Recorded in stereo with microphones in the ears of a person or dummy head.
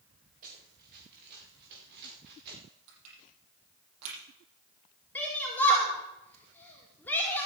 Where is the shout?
5° left (ahead or behind), 4.5 m.